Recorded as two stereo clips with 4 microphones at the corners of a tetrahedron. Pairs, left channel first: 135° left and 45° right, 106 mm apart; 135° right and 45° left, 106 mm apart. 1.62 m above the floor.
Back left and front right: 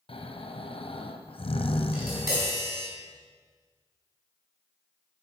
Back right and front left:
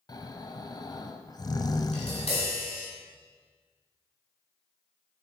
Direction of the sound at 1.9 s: 105° right.